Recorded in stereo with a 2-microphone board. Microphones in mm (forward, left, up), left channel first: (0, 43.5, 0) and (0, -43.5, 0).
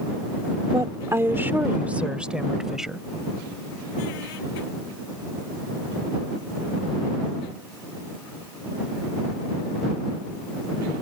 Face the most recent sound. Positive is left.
turn(degrees=-5)  # may be behind; listen again after turning